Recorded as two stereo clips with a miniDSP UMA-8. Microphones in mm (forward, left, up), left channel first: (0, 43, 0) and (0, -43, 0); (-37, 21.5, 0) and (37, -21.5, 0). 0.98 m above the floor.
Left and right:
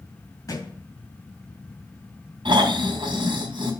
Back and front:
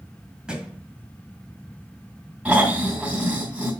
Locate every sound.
0.5 s a thud: 50° left, 1.7 m
2.5 s snoring: 105° right, 3 m